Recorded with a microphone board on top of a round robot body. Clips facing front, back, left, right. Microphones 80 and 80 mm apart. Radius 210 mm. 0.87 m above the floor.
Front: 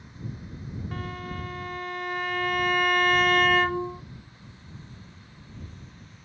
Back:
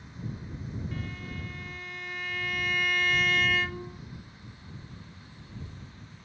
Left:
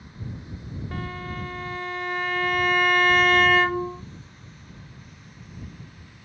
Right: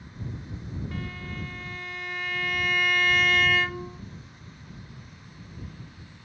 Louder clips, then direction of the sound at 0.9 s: Front 4 dB, left 4 dB; 40° left.